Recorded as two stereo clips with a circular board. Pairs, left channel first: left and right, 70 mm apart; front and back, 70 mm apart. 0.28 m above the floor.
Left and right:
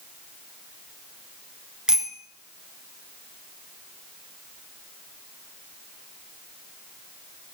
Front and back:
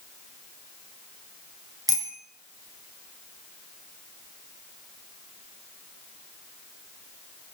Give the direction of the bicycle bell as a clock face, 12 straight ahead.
6 o'clock.